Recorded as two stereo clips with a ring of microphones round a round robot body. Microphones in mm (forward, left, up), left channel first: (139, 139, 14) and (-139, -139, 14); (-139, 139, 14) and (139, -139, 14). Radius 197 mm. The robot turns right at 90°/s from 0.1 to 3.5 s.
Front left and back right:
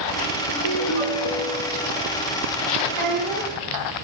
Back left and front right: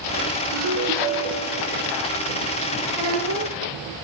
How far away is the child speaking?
About 4.5 m.